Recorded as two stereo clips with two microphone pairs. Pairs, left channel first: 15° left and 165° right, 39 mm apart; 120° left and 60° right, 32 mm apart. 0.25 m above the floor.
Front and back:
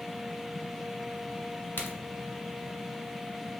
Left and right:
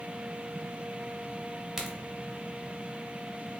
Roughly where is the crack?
Ahead.